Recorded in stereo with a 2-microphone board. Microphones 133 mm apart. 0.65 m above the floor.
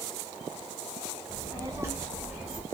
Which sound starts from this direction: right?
A child speaking, at 1.3 s.